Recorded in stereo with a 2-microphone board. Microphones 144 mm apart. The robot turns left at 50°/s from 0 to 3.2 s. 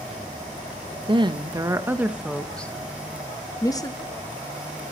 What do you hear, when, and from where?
1.1 s a woman speaking: 35° right (ahead or behind), 0.7 m; by 3.9 s 25° left (ahead or behind), 0.7 m